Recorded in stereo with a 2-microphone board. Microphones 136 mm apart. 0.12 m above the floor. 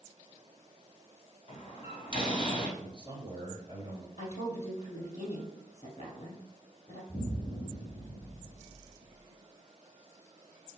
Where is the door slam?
40° left (ahead or behind), 2.5 m.